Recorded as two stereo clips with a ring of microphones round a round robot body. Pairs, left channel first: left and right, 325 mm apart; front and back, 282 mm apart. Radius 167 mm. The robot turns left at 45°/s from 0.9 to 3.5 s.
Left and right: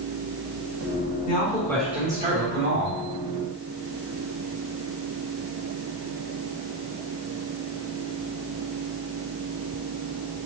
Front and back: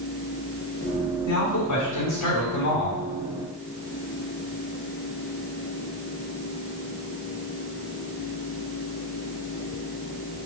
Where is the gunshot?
No gunshot in this recording.